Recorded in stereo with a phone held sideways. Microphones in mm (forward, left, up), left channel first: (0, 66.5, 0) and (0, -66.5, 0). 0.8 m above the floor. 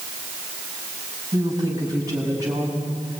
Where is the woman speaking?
25° right (ahead or behind), 6.5 m.